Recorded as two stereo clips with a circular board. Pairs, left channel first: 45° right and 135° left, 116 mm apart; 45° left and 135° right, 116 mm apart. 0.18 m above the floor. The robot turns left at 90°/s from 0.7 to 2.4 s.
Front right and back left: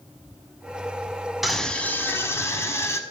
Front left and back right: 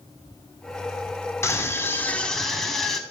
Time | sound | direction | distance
1.4 | a scream | 50° left | 1.1 m